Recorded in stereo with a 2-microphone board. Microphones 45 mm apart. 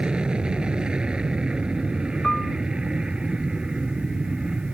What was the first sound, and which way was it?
An aircraft, 20° right (ahead or behind).